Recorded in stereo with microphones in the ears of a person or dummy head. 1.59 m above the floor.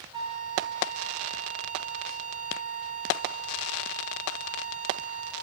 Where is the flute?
25° right (ahead or behind), 1.2 m.